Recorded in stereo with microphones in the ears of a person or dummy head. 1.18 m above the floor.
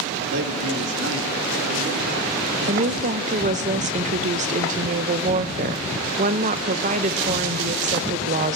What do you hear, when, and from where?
0.2 s a man speaking: 65° right (ahead or behind), 1.9 m; by 3.2 s 55° right (ahead or behind), 3.5 m
2.7 s a woman speaking: 35° right (ahead or behind), 0.6 m